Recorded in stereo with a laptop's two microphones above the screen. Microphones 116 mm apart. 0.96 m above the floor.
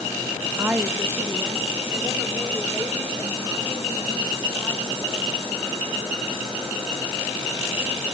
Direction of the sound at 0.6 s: 15° right (ahead or behind).